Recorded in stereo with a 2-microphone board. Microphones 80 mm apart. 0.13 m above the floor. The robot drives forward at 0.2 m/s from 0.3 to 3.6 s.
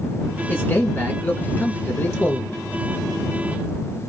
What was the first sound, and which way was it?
A man speaking, 25° left (ahead or behind).